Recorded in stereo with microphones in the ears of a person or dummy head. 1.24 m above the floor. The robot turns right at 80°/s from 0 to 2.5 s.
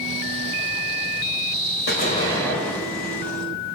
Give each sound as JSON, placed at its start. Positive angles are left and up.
{"t": 1.9, "sound": "an explosion", "azimuth_deg": 125, "distance_m": 4.0}